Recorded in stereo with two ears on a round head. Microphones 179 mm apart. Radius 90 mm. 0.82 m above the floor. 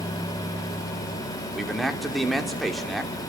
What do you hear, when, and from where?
1.5 s a man speaking: centre (ahead or behind), 3 m